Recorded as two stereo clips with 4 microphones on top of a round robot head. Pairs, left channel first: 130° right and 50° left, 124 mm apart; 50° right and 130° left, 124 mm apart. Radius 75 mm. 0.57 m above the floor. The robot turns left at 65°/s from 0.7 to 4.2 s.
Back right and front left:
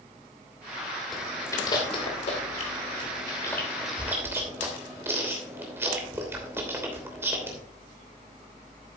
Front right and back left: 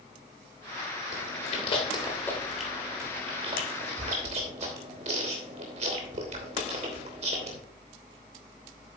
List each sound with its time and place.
1.1 s chewing: 45° right, 3 m; by 7.6 s 115° left, 3 m